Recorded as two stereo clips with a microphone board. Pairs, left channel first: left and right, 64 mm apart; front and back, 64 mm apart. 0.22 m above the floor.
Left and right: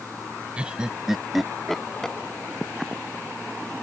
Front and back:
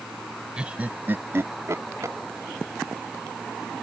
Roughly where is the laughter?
Behind right.